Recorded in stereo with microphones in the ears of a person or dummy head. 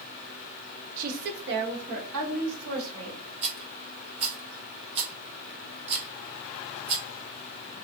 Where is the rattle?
25° right (ahead or behind), 0.8 m.